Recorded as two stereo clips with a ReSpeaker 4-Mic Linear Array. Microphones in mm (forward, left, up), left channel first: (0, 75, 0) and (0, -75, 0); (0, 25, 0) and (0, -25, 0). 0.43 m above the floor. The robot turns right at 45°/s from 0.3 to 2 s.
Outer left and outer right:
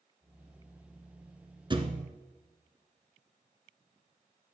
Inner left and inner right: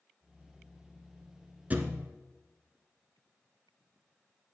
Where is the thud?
30° right (ahead or behind), 1.0 m; by 2.1 s 45° right (ahead or behind), 1.0 m.